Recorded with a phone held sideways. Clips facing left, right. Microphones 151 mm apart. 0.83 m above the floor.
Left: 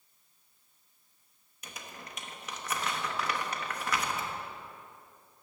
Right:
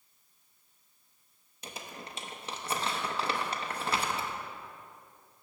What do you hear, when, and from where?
1.6 s crumpling: 30° right (ahead or behind), 0.7 m